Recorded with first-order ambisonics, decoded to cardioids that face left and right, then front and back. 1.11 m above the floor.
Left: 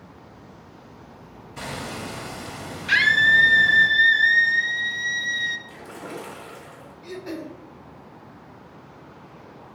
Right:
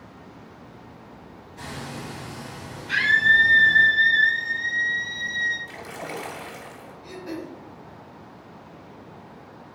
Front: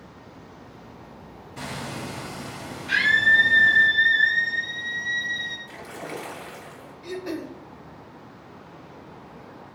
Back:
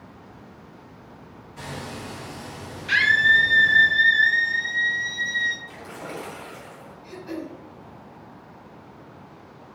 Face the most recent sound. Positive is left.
turn(degrees=20)